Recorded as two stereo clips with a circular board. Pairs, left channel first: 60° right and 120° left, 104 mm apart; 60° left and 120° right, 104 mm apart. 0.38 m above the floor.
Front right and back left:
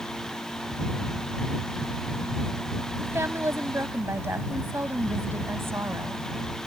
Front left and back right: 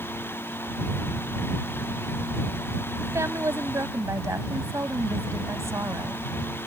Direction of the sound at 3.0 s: 175° right.